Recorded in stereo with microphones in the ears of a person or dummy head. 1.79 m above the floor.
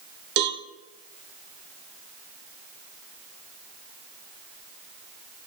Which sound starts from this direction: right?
A cowbell, at 0.4 s.